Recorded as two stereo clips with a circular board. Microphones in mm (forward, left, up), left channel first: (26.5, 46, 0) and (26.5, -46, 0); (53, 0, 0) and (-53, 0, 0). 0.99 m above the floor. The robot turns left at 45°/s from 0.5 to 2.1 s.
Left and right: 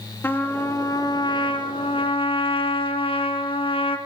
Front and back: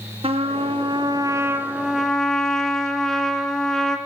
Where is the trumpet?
155° left, 3 m; by 4.0 s 85° left, 3 m.